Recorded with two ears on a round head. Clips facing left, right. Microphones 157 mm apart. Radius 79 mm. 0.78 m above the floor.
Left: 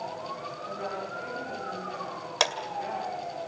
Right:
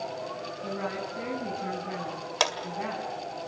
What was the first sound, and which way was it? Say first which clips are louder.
A woman speaking: right 2 dB; 70° right (ahead or behind).